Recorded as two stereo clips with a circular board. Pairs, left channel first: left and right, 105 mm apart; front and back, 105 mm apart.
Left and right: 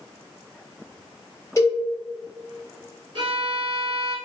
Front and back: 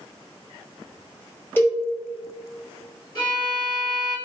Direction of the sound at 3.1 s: 50° right.